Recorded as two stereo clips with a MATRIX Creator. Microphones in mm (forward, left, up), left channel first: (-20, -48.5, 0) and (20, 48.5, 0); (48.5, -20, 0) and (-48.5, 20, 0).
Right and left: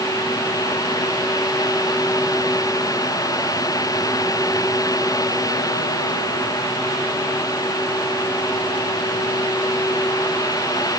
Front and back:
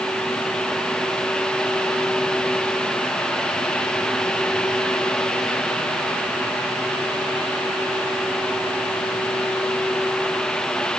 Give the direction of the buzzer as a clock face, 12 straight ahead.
No buzzer in this recording.